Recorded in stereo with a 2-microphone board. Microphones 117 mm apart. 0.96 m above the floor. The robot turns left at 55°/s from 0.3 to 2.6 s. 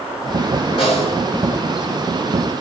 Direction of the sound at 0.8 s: 50° left (ahead or behind).